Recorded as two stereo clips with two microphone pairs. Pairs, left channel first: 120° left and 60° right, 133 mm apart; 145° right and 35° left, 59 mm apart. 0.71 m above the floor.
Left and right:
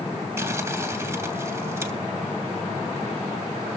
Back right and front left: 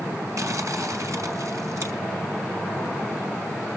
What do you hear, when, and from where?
0.4 s crumpling: 10° left, 2.5 m